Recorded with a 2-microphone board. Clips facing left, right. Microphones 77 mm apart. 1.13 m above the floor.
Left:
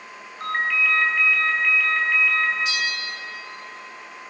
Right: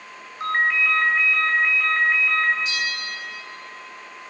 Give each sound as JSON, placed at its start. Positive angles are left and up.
{"t": 0.4, "sound": "a ringtone", "side_deg": -20, "distance_m": 6.5}
{"t": 2.6, "sound": "a bell", "side_deg": -40, "distance_m": 4.5}